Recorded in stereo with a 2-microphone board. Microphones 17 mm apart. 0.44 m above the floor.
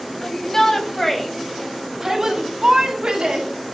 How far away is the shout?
About 3 m.